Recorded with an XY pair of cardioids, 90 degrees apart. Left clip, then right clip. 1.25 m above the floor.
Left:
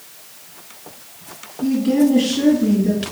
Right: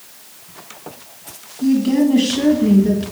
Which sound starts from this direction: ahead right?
A woman speaking, at 1.6 s.